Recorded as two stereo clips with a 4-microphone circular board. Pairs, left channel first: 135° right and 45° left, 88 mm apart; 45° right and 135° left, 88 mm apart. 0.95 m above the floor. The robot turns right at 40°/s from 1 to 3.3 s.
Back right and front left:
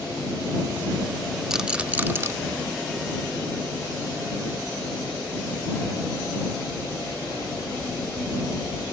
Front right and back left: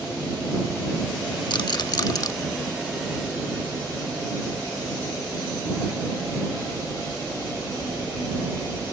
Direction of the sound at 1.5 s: 40° right.